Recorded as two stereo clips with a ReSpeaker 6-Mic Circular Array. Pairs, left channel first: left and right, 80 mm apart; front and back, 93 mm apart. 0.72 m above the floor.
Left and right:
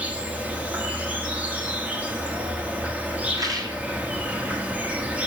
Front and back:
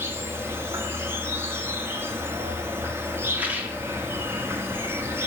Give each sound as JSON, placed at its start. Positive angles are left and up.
{"t": 0.0, "sound": "an insect", "azimuth_deg": -145, "distance_m": 1.3}
{"t": 3.3, "sound": "a rattle", "azimuth_deg": -110, "distance_m": 1.9}